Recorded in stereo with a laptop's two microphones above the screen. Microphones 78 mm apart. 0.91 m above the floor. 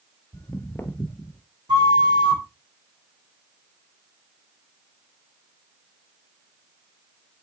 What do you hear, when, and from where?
0.3 s footsteps: 30° left (ahead or behind), 1.0 m; by 1.4 s 20° left (ahead or behind), 1.2 m
1.7 s a flute: 85° right, 2.5 m